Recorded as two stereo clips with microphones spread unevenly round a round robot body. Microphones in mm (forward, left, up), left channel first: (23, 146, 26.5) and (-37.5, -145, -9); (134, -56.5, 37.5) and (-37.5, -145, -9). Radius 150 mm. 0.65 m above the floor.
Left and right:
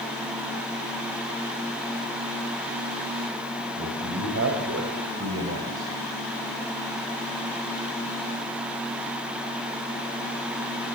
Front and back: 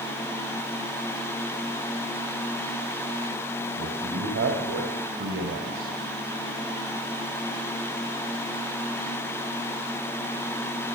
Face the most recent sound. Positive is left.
turn(degrees=-150)